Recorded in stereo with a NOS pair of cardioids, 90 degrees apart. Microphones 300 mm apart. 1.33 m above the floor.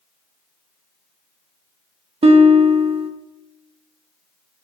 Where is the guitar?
20° right, 0.5 m.